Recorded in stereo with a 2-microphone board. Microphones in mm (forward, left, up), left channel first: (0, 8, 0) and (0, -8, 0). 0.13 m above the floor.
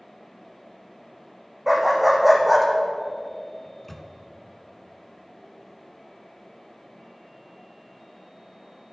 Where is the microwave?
20° left (ahead or behind), 0.9 m.